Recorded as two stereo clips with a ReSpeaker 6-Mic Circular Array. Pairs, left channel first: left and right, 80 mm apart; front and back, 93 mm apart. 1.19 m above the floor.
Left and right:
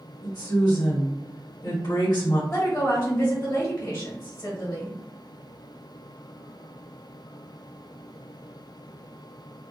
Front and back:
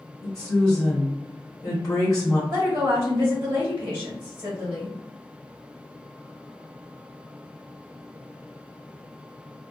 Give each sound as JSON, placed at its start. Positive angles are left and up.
{"t": 0.2, "sound": "a woman speaking", "azimuth_deg": 50, "distance_m": 1.2}
{"t": 2.5, "sound": "a woman speaking", "azimuth_deg": 120, "distance_m": 1.1}